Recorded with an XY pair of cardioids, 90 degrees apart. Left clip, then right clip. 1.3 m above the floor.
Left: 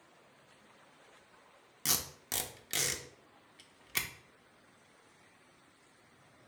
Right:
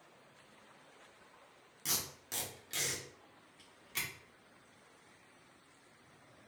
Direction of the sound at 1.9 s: 60° left.